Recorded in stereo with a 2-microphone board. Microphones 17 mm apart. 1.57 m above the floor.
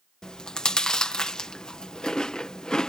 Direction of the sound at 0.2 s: 55° left (ahead or behind).